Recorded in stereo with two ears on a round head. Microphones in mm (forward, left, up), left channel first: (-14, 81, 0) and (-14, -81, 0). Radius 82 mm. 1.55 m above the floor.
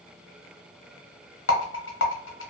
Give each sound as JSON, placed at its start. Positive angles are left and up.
{"t": 1.5, "sound": "a rattle", "side_deg": 80, "distance_m": 0.8}